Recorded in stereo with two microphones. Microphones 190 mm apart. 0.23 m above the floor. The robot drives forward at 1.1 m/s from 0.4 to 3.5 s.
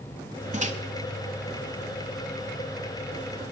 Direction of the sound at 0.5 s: 35° right (ahead or behind).